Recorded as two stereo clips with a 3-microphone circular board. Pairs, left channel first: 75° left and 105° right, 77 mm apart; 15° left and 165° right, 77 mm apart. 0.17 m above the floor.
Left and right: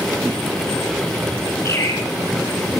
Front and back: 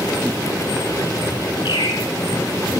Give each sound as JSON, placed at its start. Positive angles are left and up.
{"t": 1.6, "sound": "a bird", "azimuth_deg": 25, "distance_m": 3.5}